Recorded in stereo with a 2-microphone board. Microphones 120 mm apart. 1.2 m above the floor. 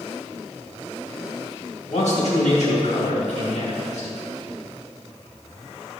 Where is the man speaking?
70° left (ahead or behind), 2.5 m.